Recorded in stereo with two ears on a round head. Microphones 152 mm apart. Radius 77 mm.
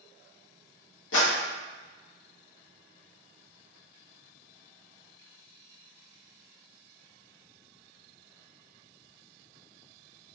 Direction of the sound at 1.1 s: 80° left.